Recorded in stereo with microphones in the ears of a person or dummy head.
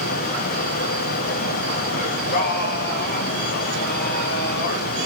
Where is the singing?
50° left (ahead or behind), 0.8 m.